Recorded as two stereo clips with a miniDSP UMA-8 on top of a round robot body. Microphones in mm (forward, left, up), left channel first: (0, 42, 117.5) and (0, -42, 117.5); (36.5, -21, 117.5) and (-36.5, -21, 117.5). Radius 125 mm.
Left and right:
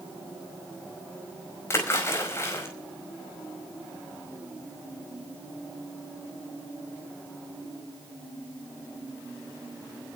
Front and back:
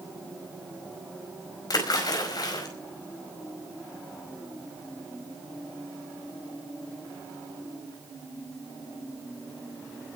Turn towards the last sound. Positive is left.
turn(degrees=30)